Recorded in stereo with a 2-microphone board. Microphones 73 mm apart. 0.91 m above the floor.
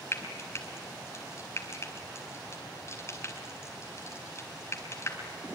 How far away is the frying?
About 4 m.